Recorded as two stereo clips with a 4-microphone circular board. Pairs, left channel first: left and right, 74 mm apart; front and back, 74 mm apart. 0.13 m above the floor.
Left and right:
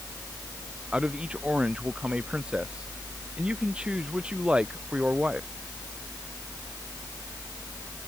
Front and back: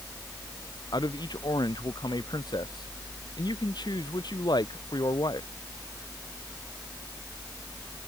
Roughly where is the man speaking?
Ahead.